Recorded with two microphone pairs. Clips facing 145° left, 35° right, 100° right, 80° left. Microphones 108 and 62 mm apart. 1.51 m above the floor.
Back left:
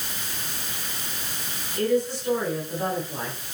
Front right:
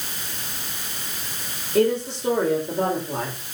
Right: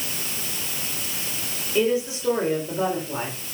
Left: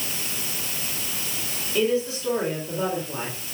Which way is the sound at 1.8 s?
30° right.